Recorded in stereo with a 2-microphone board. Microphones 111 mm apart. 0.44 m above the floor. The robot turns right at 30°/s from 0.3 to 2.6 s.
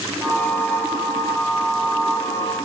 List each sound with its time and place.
Only background noise.